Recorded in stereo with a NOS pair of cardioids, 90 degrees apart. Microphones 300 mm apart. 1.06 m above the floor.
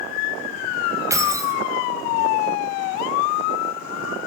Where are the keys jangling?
10° right, 4.5 m.